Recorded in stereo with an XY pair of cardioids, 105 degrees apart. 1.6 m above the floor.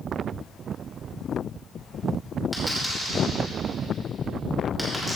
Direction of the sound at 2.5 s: 5° right.